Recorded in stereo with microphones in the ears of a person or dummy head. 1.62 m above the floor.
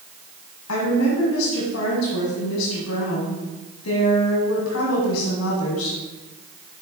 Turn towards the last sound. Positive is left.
turn(degrees=85)